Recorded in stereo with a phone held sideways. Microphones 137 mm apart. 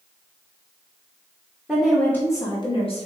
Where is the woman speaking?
5° right (ahead or behind), 0.8 m; by 3.1 s 50° left (ahead or behind), 1.0 m.